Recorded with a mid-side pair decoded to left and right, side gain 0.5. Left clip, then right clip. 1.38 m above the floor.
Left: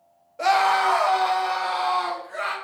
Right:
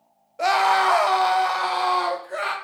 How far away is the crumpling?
I don't hear crumpling.